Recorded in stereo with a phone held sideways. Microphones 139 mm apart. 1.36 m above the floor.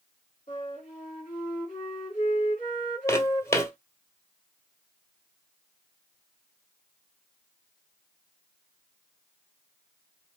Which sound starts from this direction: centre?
Footsteps, at 3.1 s.